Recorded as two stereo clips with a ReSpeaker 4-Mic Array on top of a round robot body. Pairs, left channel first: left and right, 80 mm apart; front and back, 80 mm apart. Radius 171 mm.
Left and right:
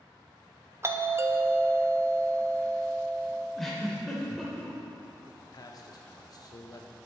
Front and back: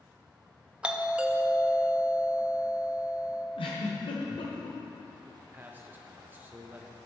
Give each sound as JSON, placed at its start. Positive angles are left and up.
{"t": 0.8, "sound": "a doorbell", "azimuth_deg": -115, "distance_m": 0.9}
{"t": 3.6, "sound": "a giggle", "azimuth_deg": 5, "distance_m": 1.0}
{"t": 5.2, "sound": "a man speaking", "azimuth_deg": 115, "distance_m": 0.7}